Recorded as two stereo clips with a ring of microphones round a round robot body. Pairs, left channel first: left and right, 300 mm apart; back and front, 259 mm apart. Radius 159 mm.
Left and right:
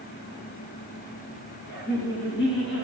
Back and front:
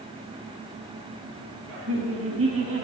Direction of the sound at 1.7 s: 30° left.